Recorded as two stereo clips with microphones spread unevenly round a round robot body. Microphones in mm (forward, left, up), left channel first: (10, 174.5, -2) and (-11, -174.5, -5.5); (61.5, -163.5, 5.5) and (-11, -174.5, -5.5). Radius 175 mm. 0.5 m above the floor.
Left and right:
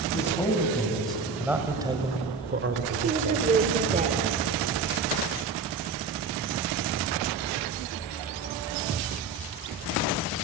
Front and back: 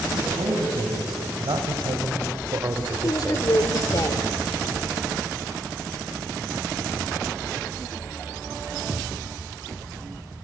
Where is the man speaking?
170° left, 4 m; by 3.5 s 95° right, 1.7 m.